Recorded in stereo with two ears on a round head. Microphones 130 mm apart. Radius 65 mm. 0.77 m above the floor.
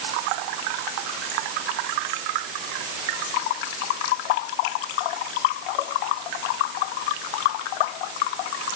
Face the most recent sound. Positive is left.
No sound to turn to.